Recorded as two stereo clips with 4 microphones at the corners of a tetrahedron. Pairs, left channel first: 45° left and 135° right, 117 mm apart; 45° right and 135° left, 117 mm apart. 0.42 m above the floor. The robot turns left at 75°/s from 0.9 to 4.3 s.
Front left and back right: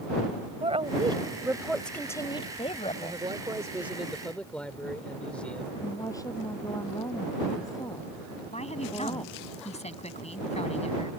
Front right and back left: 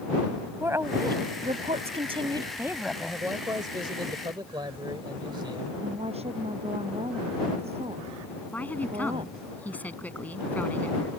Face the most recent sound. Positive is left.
turn(degrees=30)